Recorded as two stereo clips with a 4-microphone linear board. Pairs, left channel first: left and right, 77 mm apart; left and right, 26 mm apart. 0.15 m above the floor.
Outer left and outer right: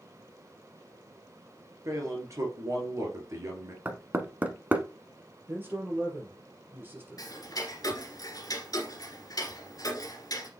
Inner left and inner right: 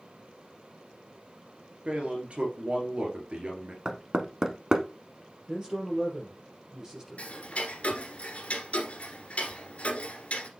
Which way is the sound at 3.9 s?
20° right (ahead or behind).